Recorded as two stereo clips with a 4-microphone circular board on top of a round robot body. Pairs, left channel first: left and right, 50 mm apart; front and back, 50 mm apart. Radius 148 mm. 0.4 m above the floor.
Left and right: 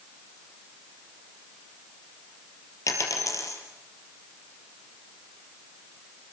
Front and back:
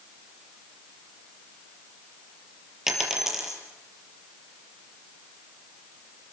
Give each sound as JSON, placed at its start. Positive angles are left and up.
{"t": 2.9, "sound": "a dropped coin", "azimuth_deg": 95, "distance_m": 5.5}